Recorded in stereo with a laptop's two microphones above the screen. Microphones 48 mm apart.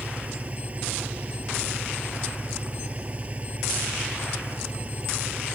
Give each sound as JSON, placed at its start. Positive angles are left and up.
{"t": 0.0, "sound": "an engine running", "side_deg": -30}